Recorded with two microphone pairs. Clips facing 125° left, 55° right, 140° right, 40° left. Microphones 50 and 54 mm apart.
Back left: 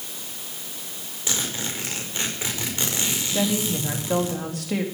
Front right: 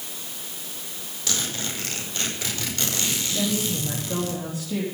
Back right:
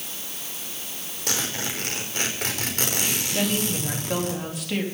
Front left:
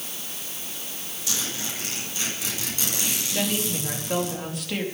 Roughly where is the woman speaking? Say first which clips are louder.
Back left 3 dB, back right 1 dB; behind left.